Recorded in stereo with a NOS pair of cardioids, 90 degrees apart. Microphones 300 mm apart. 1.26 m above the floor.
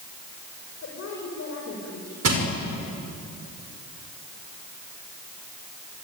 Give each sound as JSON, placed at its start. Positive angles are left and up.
{"t": 0.8, "sound": "a woman speaking", "azimuth_deg": 50, "distance_m": 5.5}
{"t": 2.2, "sound": "crushing", "azimuth_deg": -55, "distance_m": 5.5}